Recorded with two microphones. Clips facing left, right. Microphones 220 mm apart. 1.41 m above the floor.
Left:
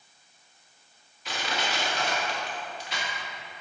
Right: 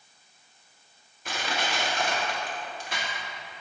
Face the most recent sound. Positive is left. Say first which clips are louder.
# right 1 dB
turn(degrees=-50)  # may be behind; listen again after turning